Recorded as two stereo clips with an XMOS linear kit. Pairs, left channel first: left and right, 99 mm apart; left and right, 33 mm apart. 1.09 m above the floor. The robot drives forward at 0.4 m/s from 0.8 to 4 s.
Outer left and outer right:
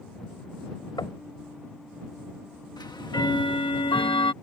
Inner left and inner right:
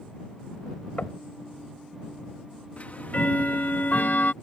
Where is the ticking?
45° left (ahead or behind); by 4.3 s 60° left (ahead or behind).